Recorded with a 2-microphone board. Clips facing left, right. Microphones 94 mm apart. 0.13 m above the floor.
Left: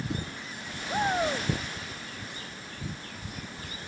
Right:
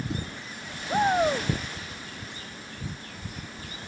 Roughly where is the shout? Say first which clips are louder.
Right 5 dB; centre.